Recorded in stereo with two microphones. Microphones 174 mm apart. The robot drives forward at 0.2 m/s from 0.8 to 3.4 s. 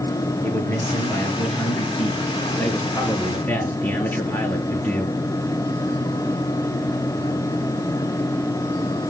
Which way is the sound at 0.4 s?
15° left (ahead or behind).